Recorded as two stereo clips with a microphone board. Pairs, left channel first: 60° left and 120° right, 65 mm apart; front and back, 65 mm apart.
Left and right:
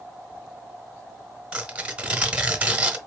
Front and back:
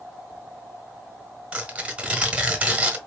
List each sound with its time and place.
1.5 s tearing paper: 150° right, 0.9 m